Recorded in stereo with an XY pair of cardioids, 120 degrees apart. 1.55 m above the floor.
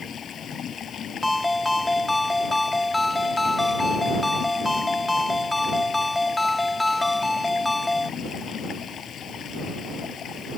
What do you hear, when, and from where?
0.0 s running water: 45° left
1.2 s a ringtone: 10° left